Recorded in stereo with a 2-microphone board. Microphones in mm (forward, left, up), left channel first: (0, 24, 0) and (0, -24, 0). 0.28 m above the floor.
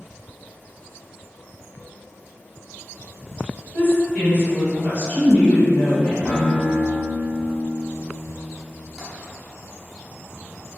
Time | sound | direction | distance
3.7 | a woman speaking | 30° left (ahead or behind) | 1.9 m
6.2 | a guitar | 20° left (ahead or behind) | 1.1 m
9.0 | tapping | 10° right (ahead or behind) | 1.1 m